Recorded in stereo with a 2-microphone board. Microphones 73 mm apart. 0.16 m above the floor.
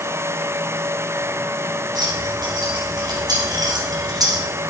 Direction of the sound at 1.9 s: 65° right (ahead or behind).